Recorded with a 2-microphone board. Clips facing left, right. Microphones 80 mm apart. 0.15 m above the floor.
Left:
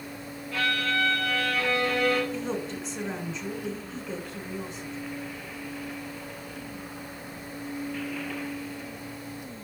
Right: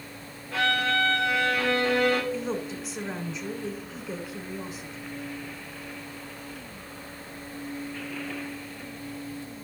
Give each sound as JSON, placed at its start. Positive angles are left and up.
{"t": 0.5, "sound": "a violin", "side_deg": -25, "distance_m": 2.5}
{"t": 2.3, "sound": "a woman speaking", "side_deg": -5, "distance_m": 1.3}